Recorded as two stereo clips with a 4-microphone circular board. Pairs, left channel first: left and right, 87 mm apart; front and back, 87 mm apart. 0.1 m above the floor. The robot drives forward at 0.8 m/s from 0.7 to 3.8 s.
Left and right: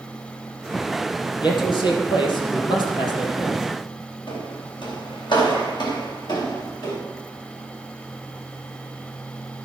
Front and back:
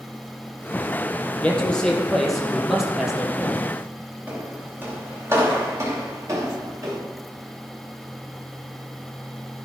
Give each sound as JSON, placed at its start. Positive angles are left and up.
{"t": 1.4, "sound": "a man speaking", "azimuth_deg": 70, "distance_m": 3.5}
{"t": 4.3, "sound": "footsteps", "azimuth_deg": 110, "distance_m": 6.5}